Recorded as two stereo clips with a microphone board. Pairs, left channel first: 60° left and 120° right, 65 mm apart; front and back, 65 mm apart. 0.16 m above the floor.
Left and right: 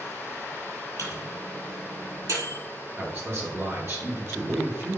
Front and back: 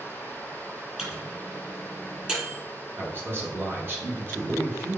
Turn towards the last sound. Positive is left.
turn(degrees=-140)